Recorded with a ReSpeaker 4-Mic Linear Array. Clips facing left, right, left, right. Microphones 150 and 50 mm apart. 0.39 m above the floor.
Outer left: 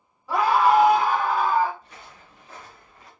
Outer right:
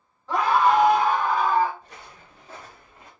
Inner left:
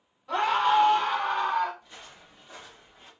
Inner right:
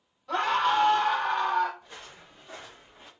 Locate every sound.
0.3 s a scream: 10° left (ahead or behind), 1.5 m; by 1.7 s 5° left (ahead or behind), 2 m
1.8 s footsteps: 40° right (ahead or behind), 2.5 m; by 3.1 s 20° right (ahead or behind), 1.6 m